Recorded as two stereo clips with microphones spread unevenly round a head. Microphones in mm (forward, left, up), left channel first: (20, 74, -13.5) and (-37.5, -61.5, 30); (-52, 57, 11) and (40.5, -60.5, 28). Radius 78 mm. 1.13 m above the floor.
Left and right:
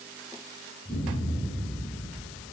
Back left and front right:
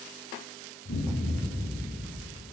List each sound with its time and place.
0.8 s an explosion: 125° left, 8 m